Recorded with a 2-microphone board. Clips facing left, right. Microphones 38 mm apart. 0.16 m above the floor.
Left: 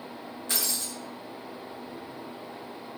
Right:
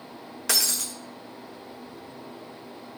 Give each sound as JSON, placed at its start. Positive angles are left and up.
{"t": 0.5, "sound": "breaking glass", "side_deg": -85, "distance_m": 3.5}